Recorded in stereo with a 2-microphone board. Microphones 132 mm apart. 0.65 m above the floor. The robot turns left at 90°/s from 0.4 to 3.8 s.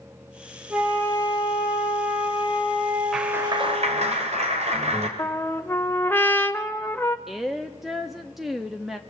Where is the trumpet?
15° left (ahead or behind), 0.8 m.